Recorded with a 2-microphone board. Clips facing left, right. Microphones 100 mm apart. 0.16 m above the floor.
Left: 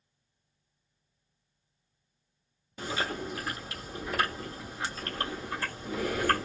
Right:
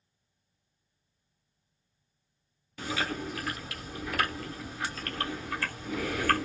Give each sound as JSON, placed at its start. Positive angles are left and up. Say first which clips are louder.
{"t": 2.8, "sound": "chewing", "louder": "even", "side_deg": 25, "distance_m": 1.3}